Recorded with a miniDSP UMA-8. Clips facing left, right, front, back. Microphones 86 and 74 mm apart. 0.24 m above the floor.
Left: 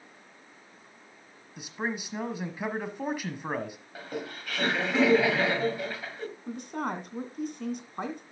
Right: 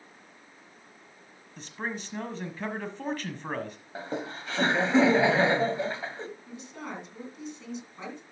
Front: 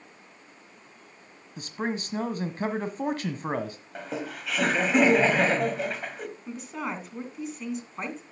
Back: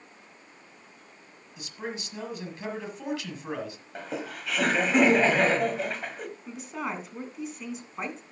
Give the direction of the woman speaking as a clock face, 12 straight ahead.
9 o'clock.